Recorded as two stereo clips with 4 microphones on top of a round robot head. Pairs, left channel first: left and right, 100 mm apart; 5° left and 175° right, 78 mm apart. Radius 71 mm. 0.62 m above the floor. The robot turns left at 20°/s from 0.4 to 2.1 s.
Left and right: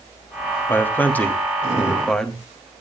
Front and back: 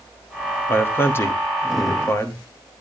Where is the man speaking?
40° left, 1.4 m; by 2.4 s 10° left, 1.4 m.